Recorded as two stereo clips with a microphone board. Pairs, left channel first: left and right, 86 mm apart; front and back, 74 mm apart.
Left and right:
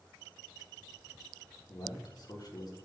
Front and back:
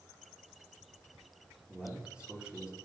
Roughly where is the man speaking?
Left.